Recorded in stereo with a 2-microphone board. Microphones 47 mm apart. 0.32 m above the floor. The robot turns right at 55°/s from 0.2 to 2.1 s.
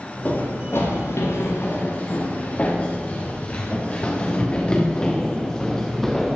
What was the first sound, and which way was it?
Running footsteps, 35° left (ahead or behind).